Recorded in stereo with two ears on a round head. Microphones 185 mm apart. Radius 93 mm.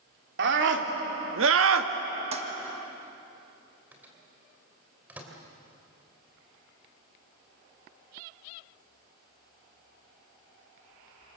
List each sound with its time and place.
0.4 s a scream: 60° right (ahead or behind), 3 m; by 1.9 s 75° right (ahead or behind), 1.6 m
2.3 s a toilet flushing: 30° right (ahead or behind), 1.5 m
3.9 s a microwave: 10° right (ahead or behind), 3 m